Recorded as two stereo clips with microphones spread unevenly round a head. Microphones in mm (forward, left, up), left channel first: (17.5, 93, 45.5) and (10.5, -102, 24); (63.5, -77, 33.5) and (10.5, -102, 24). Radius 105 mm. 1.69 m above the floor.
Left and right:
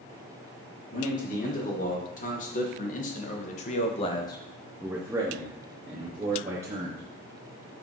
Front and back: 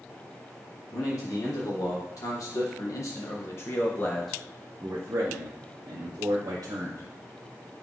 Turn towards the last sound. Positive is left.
turn(degrees=-150)